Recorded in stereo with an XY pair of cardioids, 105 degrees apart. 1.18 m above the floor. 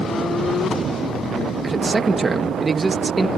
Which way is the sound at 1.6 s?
25° right.